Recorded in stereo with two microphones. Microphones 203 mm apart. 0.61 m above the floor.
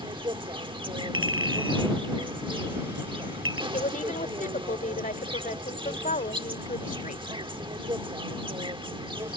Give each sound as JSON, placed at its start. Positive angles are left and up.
{"t": 0.0, "sound": "an insect", "side_deg": -25}
{"t": 1.1, "sound": "a clink", "side_deg": -85}
{"t": 3.7, "sound": "a woman speaking", "side_deg": 40}